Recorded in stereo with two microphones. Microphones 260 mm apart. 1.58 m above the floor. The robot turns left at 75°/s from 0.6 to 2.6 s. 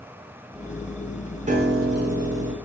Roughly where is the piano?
Ahead right.